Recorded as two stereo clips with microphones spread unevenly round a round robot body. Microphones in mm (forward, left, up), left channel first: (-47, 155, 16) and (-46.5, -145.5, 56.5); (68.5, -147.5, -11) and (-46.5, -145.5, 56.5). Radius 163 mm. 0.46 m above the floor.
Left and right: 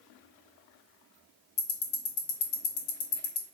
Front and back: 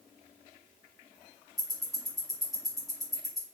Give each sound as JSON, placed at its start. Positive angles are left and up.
{"t": 1.6, "sound": "ticking", "azimuth_deg": 65, "distance_m": 0.5}